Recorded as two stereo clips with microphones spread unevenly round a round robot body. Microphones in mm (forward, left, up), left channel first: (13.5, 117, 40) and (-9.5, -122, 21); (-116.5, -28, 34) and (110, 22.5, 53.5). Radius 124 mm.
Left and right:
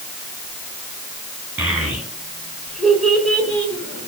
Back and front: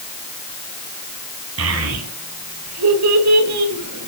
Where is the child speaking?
10° right, 6 m; by 4.1 s 5° left, 4 m.